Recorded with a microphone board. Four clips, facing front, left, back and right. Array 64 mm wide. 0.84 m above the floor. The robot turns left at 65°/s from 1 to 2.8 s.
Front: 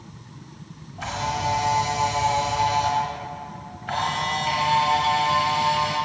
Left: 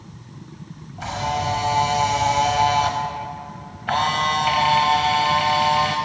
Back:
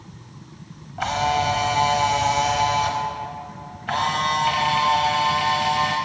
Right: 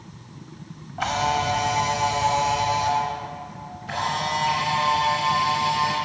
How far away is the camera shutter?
About 1.0 m.